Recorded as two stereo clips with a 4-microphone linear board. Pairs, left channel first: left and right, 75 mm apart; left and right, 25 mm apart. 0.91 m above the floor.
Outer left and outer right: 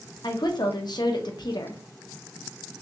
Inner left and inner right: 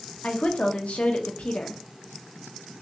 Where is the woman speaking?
70° left (ahead or behind), 0.8 m.